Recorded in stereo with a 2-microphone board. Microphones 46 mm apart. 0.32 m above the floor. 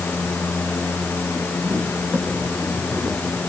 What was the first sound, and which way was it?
Only background noise.